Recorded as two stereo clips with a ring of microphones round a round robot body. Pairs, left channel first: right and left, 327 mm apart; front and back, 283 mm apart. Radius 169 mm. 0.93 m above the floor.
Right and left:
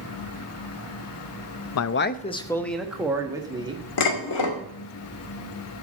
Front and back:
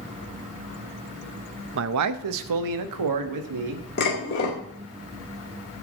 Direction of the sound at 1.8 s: 130° right.